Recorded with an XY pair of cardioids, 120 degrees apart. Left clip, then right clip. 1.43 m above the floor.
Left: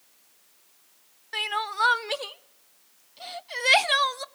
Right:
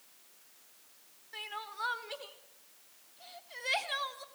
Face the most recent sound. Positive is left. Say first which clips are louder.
# left 14 dB
turn(degrees=65)